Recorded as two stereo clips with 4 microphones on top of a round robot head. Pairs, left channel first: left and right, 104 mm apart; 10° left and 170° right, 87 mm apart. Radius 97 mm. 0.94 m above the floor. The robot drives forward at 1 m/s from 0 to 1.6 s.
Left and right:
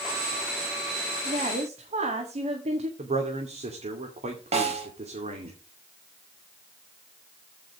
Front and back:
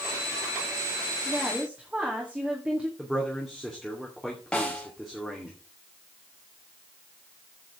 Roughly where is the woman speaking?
Right.